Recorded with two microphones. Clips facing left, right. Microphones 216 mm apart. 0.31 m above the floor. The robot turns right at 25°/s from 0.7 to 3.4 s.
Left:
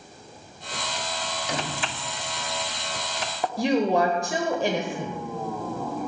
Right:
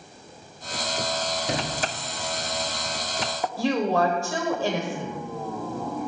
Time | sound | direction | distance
1.5 | a sliding door | 30° right (ahead or behind) | 1.4 m
3.6 | a woman speaking | 20° left (ahead or behind) | 0.9 m